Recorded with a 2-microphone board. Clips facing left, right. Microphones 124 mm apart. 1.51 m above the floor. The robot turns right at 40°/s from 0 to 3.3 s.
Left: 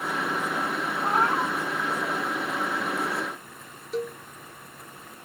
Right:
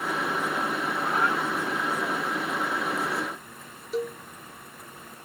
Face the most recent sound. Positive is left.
turn(degrees=-5)  # may be behind; listen again after turning